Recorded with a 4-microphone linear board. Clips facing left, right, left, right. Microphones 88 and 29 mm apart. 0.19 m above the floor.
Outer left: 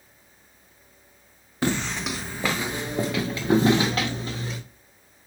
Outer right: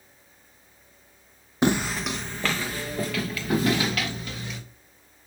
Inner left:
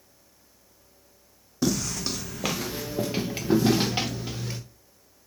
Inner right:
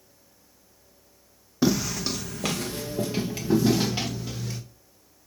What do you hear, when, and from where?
1.6 s footsteps: 20° right (ahead or behind), 0.7 m; by 4.6 s 35° left (ahead or behind), 2.5 m